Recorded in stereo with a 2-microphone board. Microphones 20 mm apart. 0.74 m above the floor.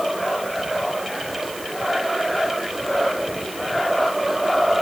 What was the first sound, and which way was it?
Only background noise.